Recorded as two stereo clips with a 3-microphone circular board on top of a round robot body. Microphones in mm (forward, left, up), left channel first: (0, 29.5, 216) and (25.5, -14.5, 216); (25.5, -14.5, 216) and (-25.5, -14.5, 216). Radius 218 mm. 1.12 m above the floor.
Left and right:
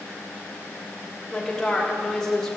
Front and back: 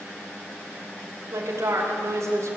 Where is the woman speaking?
160° right, 5.5 m.